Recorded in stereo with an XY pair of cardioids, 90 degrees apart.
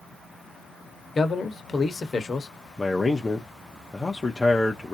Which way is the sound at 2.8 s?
20° left.